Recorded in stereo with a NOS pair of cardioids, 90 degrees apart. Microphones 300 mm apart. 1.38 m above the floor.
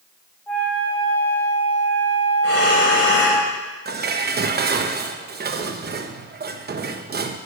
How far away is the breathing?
About 4.5 m.